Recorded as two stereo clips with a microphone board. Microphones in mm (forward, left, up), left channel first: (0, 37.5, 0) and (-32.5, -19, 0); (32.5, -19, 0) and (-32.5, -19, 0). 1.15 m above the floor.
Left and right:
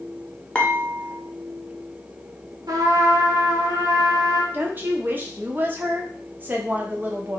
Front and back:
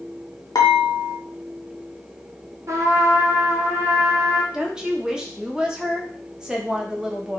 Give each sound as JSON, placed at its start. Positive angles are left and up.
{"t": 0.6, "sound": "dishes clattering", "azimuth_deg": -10, "distance_m": 0.6}
{"t": 2.7, "sound": "a trumpet", "azimuth_deg": -140, "distance_m": 0.6}
{"t": 4.5, "sound": "a woman speaking", "azimuth_deg": -110, "distance_m": 0.5}